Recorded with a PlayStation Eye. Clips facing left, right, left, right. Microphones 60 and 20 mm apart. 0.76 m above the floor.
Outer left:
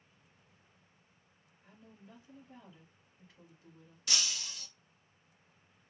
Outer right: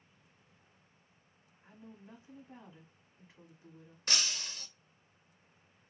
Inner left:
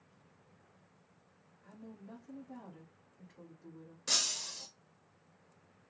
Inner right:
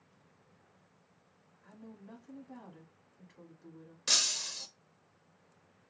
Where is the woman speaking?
20° right (ahead or behind), 1.6 m.